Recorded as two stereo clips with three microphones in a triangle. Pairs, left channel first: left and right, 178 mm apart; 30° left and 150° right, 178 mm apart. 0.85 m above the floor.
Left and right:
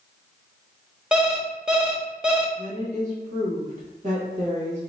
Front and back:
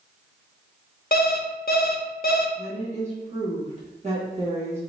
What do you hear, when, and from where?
1.1 s an alarm clock: 5° right, 0.5 m
2.6 s a woman speaking: 115° right, 1.3 m